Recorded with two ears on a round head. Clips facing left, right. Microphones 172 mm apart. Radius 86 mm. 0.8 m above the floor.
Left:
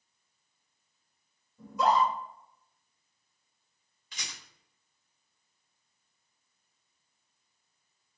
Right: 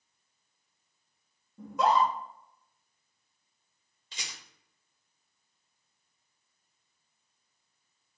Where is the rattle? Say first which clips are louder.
Even; 25° right (ahead or behind), 1.8 m.